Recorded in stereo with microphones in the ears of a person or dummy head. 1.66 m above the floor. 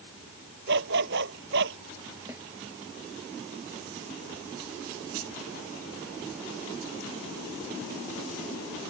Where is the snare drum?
15° right (ahead or behind).